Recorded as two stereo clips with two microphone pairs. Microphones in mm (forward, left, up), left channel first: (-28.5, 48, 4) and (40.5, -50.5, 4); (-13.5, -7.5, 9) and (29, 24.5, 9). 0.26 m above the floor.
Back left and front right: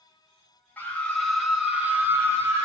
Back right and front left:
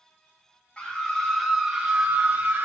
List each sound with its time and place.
0.8 s a scream: straight behind, 1.2 m; by 2.7 s 5° right, 1.5 m